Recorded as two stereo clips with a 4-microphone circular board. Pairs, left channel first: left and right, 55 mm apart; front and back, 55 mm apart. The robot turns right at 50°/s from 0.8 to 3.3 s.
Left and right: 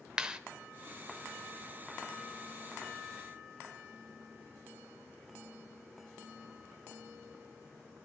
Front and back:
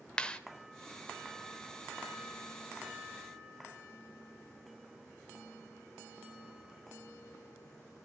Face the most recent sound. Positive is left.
turn(degrees=80)